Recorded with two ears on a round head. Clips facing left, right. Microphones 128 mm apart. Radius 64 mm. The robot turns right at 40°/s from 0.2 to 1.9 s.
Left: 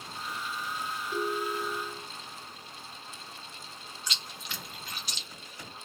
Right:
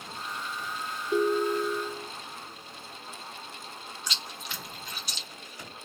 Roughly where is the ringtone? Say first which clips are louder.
Right 8 dB; right.